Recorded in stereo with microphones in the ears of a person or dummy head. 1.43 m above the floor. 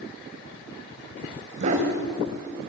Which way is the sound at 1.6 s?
45° right (ahead or behind).